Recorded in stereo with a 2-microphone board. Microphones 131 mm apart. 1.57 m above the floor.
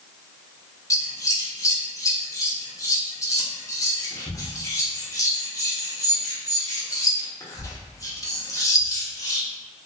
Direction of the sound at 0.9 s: 25° left (ahead or behind).